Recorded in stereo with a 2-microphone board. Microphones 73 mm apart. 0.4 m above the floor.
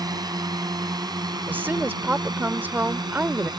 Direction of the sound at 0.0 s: 60° right (ahead or behind).